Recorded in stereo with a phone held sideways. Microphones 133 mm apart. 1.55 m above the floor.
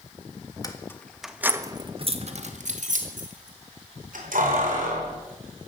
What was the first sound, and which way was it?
Keys jangling, 30° left (ahead or behind).